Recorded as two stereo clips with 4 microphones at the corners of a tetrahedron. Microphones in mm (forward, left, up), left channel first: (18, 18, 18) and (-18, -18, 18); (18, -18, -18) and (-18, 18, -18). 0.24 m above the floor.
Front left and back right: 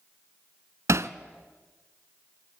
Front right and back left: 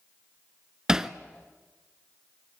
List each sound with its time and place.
0.9 s hammering: 145° right, 0.8 m